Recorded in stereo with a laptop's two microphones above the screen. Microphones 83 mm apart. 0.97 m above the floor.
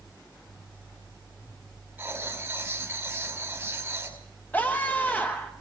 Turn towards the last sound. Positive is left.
turn(degrees=20)  # may be behind; listen again after turning